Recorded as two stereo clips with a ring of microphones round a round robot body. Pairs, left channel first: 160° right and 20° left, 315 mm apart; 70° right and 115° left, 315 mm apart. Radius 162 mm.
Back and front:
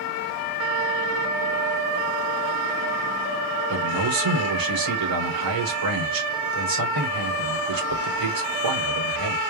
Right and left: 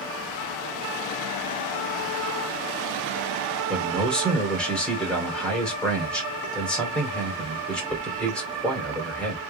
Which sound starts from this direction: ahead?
A man speaking, at 3.7 s.